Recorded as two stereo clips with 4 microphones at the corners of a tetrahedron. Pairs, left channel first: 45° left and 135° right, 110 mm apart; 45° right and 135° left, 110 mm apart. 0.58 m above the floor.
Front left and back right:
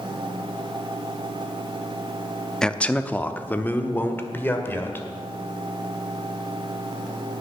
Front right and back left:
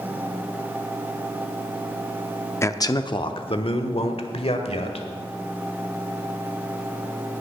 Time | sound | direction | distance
2.6 | a man speaking | 30° right | 0.6 m